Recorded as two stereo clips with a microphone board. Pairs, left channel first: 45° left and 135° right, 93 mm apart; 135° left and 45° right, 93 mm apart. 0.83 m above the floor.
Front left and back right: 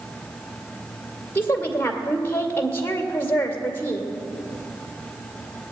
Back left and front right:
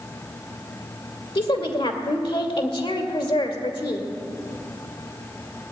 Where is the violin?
No violin in this recording.